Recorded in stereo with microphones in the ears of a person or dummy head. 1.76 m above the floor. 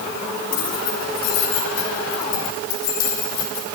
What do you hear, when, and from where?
0.5 s keys jangling: 75° left (ahead or behind), 4.5 m